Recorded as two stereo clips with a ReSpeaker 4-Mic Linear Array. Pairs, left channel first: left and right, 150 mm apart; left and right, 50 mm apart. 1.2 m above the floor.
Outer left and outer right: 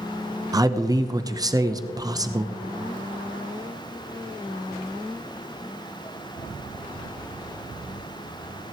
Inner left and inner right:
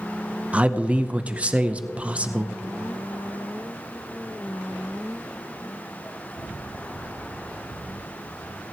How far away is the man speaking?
About 0.7 m.